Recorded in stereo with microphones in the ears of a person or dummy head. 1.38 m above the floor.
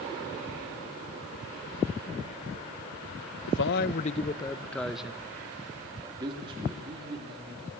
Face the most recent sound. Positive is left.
turn(degrees=-35)  # may be behind; listen again after turning